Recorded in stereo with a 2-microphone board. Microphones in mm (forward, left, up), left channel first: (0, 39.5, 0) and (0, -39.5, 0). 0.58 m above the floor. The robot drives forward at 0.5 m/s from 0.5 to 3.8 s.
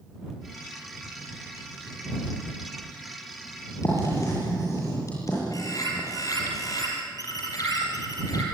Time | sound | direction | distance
3.8 | writing | 40° left (ahead or behind) | 9 m
5.5 | a bird | 50° left (ahead or behind) | 5.5 m